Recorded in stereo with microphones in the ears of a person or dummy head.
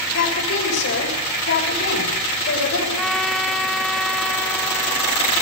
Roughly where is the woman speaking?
Left.